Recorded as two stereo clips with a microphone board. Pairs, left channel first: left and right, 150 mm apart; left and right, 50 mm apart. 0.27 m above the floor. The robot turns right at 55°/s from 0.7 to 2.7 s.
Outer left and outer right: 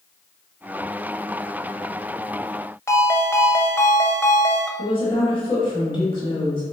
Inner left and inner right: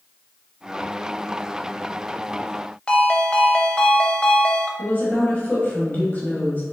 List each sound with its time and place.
2.9 s a ringtone: 20° left (ahead or behind), 0.6 m
4.8 s a woman speaking: 35° left (ahead or behind), 1.1 m